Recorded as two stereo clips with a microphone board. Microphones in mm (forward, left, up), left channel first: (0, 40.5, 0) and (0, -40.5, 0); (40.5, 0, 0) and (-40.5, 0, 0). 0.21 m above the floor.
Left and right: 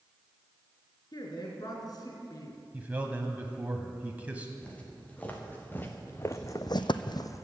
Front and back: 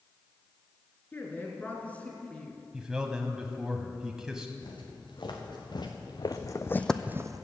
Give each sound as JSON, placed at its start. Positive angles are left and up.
{"t": 1.1, "sound": "a woman speaking", "azimuth_deg": 65, "distance_m": 3.0}
{"t": 2.7, "sound": "a man speaking", "azimuth_deg": -110, "distance_m": 1.0}
{"t": 4.6, "sound": "footsteps", "azimuth_deg": 15, "distance_m": 3.5}